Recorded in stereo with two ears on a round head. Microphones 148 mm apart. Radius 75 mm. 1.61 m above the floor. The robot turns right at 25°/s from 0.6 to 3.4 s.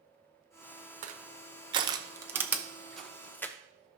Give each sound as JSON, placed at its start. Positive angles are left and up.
{"t": 1.0, "sound": "crushing", "side_deg": -45, "distance_m": 0.7}